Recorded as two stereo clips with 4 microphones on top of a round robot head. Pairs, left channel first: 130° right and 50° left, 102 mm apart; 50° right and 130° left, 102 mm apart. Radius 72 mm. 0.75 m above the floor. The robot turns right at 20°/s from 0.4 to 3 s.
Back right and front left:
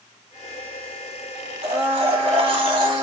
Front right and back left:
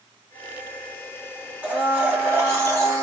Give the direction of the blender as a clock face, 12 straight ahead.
10 o'clock.